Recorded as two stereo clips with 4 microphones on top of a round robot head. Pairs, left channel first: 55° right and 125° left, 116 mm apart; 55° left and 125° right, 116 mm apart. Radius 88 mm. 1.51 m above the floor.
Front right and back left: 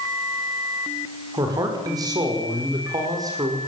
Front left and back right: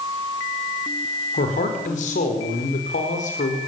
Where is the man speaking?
70° left, 5 m.